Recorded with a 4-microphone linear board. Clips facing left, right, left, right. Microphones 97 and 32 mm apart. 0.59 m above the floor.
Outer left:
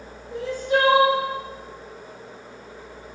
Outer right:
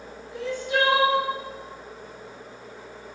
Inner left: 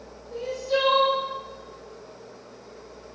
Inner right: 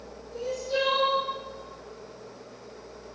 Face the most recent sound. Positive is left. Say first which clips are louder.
# outer left 4 dB, inner left 3 dB
turn(degrees=40)  # may be behind; listen again after turning